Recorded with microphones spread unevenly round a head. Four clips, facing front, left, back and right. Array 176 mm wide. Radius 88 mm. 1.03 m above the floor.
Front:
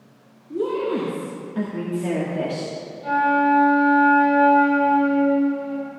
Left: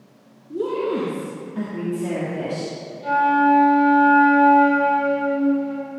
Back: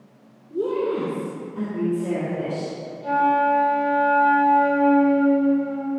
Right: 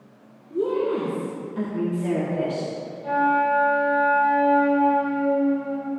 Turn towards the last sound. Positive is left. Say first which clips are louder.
# left 4 dB, even
turn(degrees=65)